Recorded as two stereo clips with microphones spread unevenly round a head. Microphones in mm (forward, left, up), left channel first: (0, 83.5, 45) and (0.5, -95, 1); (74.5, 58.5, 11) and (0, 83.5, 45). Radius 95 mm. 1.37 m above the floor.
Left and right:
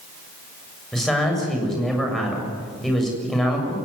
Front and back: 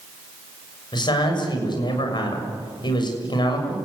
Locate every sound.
0.9 s a man speaking: straight ahead, 7 m